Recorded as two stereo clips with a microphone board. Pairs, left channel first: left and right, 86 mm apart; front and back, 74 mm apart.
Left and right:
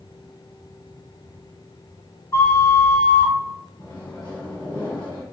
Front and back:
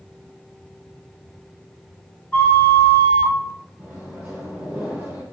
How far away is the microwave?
About 1.6 m.